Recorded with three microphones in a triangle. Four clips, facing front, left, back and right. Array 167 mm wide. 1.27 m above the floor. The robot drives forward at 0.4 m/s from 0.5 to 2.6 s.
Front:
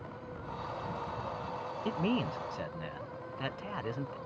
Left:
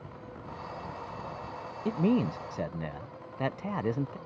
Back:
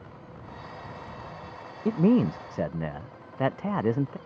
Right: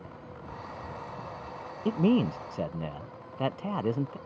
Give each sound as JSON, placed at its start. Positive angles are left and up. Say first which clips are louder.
{"t": 1.9, "sound": "a man speaking", "louder": "right 2 dB, back 11 dB", "azimuth_deg": -165}